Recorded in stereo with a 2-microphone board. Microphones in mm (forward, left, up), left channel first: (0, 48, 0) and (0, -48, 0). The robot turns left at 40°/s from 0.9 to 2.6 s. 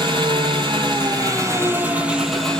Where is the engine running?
120° right, 1.5 m; by 2.6 s 170° left, 1.5 m.